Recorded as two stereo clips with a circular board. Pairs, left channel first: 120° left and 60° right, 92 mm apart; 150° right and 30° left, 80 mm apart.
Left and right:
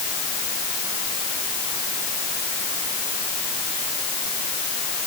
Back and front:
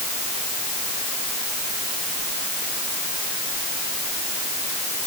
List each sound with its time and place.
Only background noise.